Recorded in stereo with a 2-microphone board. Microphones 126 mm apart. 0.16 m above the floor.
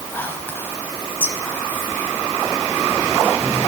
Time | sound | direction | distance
0.1 | whispering | 15° left (ahead or behind) | 1.1 m